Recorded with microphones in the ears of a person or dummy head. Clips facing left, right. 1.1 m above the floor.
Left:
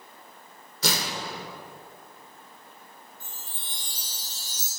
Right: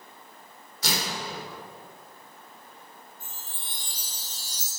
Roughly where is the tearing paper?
Left.